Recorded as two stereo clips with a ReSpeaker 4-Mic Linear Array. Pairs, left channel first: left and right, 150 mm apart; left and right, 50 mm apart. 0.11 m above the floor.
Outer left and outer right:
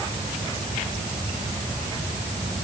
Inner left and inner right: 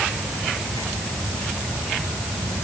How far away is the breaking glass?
I don't hear breaking glass.